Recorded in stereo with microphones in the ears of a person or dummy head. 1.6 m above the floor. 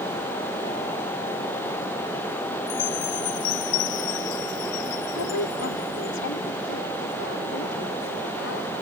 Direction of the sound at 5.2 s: 65° left (ahead or behind).